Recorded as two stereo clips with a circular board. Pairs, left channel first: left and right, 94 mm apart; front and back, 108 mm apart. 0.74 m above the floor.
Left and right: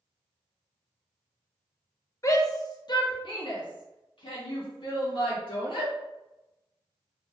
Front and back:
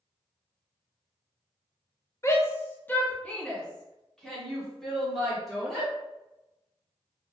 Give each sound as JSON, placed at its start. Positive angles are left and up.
{"t": 2.2, "sound": "a shout", "azimuth_deg": 50, "distance_m": 0.8}